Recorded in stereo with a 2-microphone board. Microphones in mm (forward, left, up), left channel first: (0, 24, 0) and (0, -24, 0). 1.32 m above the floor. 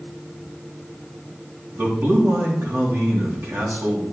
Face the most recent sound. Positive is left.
turn(degrees=-65)  # may be behind; listen again after turning